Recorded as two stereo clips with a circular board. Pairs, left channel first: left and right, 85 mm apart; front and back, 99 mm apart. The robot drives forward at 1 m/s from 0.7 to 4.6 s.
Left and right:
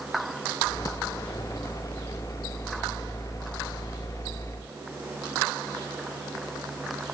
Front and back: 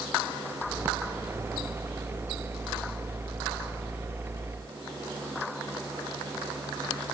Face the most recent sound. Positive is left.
No sound to turn to.